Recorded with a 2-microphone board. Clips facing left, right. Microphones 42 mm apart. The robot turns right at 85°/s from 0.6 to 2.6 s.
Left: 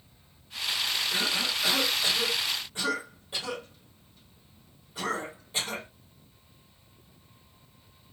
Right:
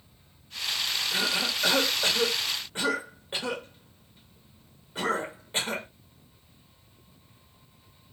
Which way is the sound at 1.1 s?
Centre (ahead or behind).